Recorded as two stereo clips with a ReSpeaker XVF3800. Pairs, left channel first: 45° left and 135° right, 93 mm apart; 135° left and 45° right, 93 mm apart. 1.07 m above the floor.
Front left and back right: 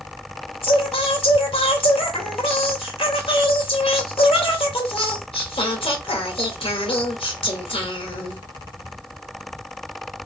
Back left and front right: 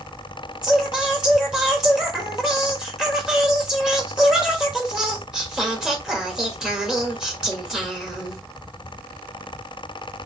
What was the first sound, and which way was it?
Singing, 40° left.